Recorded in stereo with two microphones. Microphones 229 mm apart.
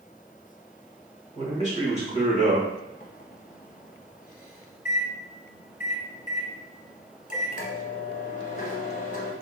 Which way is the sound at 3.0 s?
35° left (ahead or behind).